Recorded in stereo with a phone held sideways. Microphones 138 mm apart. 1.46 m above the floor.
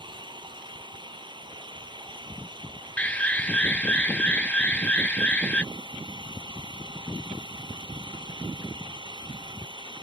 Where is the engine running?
35° right (ahead or behind).